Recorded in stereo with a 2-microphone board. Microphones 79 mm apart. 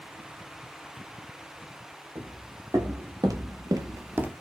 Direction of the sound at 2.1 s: 40° right (ahead or behind).